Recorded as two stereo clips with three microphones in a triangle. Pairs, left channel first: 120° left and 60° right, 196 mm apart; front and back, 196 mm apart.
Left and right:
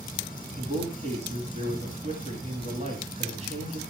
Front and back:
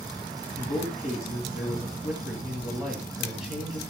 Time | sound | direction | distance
0.6 | a man speaking | 95° right | 2 m